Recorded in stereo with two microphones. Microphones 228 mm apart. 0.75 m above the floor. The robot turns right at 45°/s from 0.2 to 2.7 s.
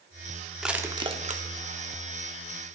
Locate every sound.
0.6 s crushing: centre (ahead or behind), 0.6 m; by 1.4 s 40° right (ahead or behind), 0.6 m